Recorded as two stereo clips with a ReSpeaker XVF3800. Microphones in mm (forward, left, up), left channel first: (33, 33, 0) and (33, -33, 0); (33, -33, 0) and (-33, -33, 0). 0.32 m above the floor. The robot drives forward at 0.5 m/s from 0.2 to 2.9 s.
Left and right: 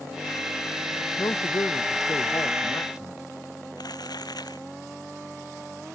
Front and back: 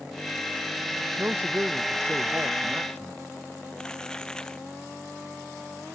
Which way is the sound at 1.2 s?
125° left.